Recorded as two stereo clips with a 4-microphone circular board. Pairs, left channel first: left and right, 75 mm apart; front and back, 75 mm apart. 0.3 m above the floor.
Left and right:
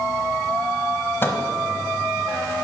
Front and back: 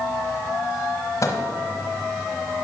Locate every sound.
1.2 s a microwave: 35° left, 1.1 m